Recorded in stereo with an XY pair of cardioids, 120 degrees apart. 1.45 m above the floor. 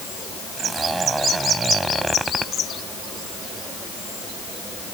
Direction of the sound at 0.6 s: 15° right.